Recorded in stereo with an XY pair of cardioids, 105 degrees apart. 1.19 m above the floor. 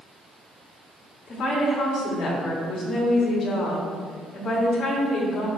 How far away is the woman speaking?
About 3 m.